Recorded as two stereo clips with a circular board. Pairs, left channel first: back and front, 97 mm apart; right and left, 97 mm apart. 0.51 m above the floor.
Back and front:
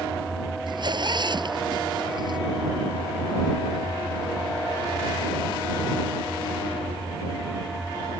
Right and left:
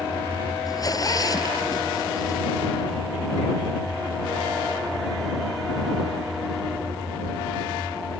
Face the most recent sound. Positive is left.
turn(degrees=-40)